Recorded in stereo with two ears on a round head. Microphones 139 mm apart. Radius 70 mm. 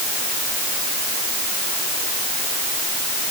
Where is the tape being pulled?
No tape being pulled in this recording.